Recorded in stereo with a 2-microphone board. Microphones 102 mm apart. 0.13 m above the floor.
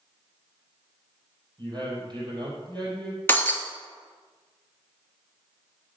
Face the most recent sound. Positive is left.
turn(degrees=20)  # may be behind; listen again after turning